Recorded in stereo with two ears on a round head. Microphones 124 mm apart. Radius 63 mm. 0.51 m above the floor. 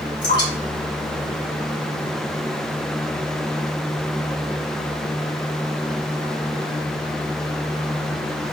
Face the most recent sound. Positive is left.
turn(degrees=30)  # may be behind; listen again after turning